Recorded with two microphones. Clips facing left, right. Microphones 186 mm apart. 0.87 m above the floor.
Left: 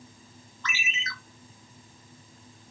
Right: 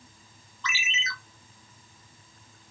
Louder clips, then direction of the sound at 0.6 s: Right 1 dB; 55° left (ahead or behind).